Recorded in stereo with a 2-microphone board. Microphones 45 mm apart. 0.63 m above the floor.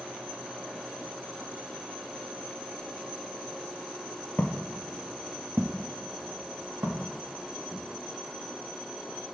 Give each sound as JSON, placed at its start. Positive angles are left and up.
{"t": 4.4, "sound": "footsteps", "side_deg": 50, "distance_m": 0.8}